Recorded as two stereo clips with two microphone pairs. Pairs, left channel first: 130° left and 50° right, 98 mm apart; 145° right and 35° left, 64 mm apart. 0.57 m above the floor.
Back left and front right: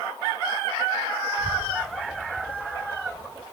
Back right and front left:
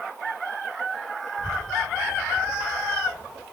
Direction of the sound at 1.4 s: 170° left.